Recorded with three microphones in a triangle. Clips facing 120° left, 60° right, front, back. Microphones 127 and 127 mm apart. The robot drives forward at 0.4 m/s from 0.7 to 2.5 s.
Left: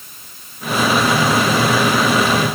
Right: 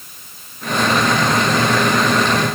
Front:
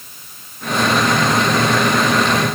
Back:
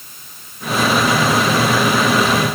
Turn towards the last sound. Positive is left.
No sound to turn to.